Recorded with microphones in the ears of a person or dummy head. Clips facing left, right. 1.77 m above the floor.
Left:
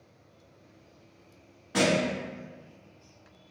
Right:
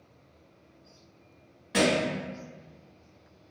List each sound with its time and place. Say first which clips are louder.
1.7 s a thud: even; 15° right (ahead or behind), 1.1 m